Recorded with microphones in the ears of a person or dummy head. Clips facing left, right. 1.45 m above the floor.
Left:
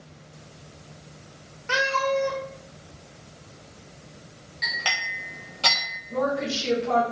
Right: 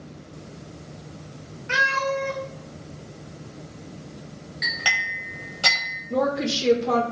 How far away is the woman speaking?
About 0.5 m.